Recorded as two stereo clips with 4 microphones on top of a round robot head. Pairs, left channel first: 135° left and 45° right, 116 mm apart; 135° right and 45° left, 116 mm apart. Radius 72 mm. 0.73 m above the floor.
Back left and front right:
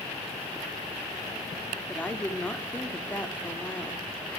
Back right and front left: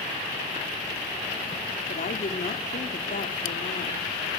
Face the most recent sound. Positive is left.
turn(degrees=-145)